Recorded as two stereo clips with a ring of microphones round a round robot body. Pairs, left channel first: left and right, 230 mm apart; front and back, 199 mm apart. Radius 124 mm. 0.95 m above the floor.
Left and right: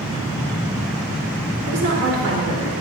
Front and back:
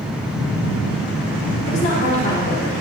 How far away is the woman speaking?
About 3.5 m.